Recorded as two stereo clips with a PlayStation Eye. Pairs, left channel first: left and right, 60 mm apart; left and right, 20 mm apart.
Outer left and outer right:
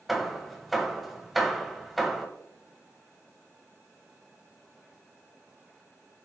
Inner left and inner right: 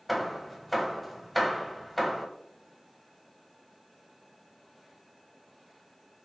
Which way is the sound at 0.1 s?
Centre (ahead or behind).